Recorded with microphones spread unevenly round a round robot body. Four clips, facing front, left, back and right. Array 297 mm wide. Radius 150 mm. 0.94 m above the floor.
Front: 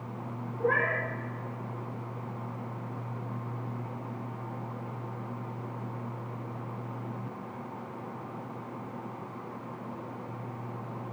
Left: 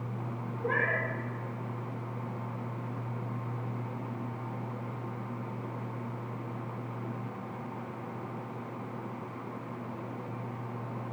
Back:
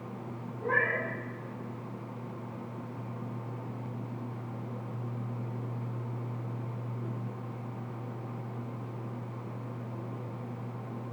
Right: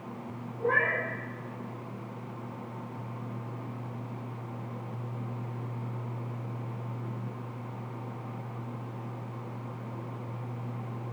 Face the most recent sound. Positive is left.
turn(degrees=-15)